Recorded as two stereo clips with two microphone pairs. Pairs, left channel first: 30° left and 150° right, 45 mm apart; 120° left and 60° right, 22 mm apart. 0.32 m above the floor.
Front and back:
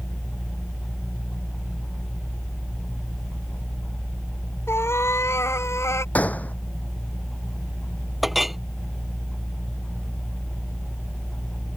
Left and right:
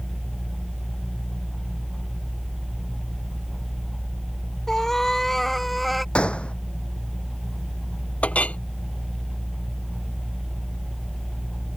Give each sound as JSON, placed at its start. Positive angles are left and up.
{"t": 4.7, "sound": "a cat meowing", "azimuth_deg": 50}
{"t": 6.2, "sound": "a gunshot", "azimuth_deg": 85}
{"t": 8.2, "sound": "a clink", "azimuth_deg": 125}